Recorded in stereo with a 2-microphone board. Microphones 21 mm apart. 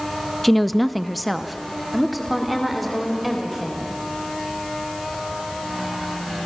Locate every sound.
0.4 s a woman speaking: 5° right (ahead or behind), 0.7 m; by 3.9 s centre (ahead or behind), 4 m